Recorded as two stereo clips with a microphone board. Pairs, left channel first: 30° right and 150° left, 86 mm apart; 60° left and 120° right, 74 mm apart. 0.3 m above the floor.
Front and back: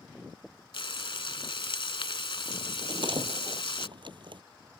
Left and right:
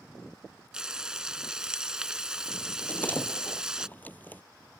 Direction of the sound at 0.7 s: 40° right.